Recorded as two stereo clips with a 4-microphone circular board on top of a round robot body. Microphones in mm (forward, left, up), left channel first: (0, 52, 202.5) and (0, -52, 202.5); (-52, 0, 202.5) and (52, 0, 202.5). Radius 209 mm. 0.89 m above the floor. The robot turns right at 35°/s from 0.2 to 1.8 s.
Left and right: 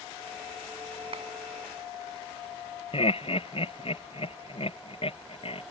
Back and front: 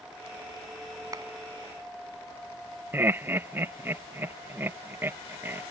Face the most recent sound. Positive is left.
turn(degrees=70)